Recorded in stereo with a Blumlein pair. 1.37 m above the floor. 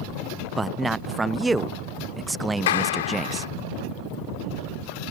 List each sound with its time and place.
0.6 s a man speaking: 10° right
2.7 s a clap: 60° left